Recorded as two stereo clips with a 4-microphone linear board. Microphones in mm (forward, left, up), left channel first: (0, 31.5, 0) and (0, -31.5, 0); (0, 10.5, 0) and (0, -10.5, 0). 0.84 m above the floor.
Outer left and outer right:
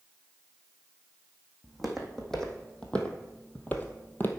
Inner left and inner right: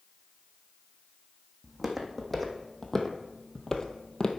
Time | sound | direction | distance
1.6 | footsteps | centre (ahead or behind) | 1.8 m